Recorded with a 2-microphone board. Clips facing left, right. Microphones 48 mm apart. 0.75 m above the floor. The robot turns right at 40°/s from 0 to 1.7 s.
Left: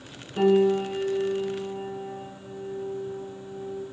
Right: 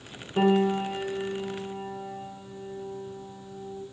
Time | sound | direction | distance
0.4 | a piano | 40° right | 0.9 m